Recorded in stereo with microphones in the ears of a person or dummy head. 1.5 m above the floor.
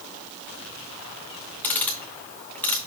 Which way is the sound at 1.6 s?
10° left (ahead or behind).